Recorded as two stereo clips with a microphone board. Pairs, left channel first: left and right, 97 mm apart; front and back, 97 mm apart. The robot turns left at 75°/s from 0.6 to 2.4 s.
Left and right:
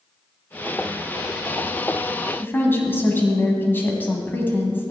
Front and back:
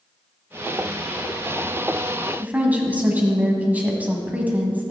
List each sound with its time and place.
2.4 s a woman speaking: 130° left, 1.7 m